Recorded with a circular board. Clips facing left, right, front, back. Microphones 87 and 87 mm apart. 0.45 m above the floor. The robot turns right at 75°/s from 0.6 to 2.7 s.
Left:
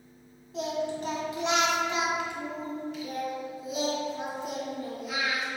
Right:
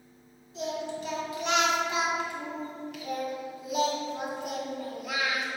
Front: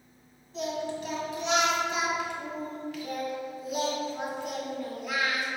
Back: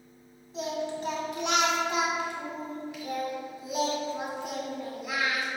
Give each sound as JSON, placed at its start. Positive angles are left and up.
{"t": 0.5, "sound": "singing", "azimuth_deg": 95, "distance_m": 1.7}